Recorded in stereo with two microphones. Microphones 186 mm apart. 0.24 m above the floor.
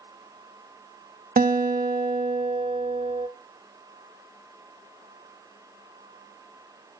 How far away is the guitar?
About 0.5 m.